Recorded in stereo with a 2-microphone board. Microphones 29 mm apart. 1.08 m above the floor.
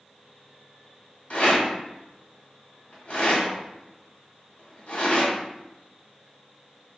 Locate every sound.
1.3 s a rattle: 45° left (ahead or behind), 1.4 m